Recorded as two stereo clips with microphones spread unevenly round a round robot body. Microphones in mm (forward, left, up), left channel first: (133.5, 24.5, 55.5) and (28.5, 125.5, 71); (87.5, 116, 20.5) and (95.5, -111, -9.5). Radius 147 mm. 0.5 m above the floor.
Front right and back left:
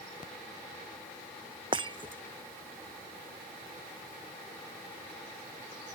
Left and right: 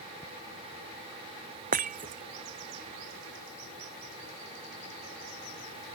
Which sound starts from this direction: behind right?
Breaking glass, at 1.7 s.